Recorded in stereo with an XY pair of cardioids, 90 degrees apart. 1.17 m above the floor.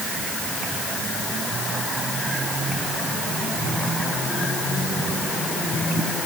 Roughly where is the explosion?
I don't hear an explosion.